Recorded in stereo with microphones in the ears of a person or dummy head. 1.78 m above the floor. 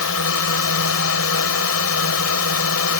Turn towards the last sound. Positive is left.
turn(degrees=75)  # may be behind; listen again after turning